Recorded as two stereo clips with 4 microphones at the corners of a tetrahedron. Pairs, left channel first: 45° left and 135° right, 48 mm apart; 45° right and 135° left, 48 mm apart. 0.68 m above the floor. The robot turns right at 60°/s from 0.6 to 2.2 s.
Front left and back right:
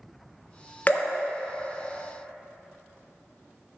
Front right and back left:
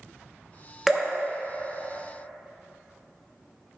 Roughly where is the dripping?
Ahead left.